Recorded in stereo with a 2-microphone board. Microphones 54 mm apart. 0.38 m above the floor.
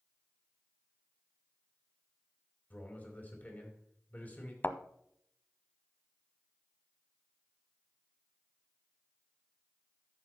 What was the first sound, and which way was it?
A man speaking, 35° left (ahead or behind).